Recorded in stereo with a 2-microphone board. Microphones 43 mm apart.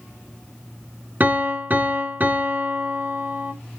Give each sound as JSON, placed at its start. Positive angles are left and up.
{"t": 1.2, "sound": "a piano", "side_deg": -45, "distance_m": 1.5}